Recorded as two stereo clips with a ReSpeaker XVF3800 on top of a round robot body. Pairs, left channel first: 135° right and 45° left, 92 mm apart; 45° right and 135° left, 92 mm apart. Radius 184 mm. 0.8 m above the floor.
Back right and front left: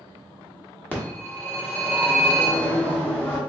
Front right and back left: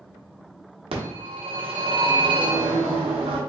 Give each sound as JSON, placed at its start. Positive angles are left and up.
{"t": 0.9, "sound": "a phone ringing", "azimuth_deg": 155, "distance_m": 1.2}